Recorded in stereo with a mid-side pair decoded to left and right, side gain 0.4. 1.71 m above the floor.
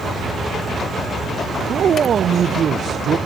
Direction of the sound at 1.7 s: 55° right.